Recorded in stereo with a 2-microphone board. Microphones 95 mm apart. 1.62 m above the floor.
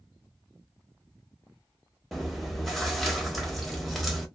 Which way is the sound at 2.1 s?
Centre (ahead or behind).